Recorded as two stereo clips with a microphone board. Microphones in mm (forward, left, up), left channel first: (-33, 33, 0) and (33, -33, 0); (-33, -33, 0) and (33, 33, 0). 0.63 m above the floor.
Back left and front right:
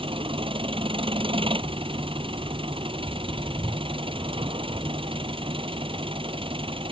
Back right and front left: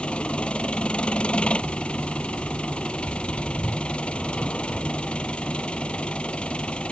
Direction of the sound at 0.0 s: 55° right.